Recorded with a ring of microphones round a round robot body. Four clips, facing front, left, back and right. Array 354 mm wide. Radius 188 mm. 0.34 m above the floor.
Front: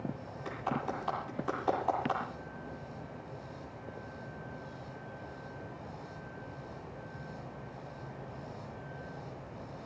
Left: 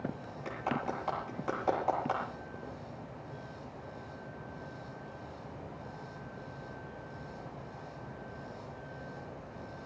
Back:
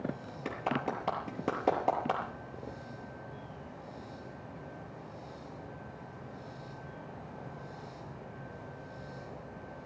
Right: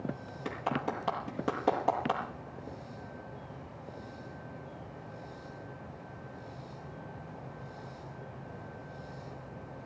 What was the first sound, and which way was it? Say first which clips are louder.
A clap: right 1 dB, back 2 dB; 145° right.